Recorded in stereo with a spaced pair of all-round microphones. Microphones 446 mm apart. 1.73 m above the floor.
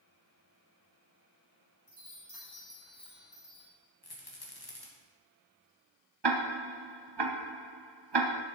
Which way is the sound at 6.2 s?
60° right (ahead or behind).